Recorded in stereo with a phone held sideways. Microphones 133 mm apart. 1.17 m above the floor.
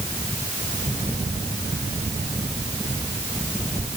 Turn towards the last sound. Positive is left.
No sound to turn to.